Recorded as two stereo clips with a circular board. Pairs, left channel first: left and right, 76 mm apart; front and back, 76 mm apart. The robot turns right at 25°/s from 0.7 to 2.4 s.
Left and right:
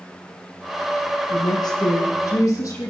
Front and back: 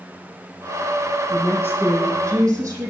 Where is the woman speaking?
105° left, 9 m; by 2.9 s 135° left, 9 m.